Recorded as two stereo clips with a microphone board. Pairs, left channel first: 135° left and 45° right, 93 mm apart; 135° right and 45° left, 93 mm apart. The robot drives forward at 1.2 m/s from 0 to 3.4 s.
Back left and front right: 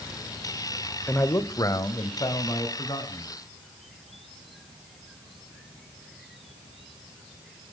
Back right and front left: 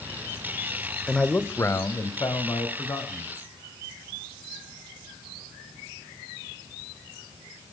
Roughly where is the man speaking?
Behind.